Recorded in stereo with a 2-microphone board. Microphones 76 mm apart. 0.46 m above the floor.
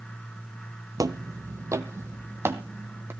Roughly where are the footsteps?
Right.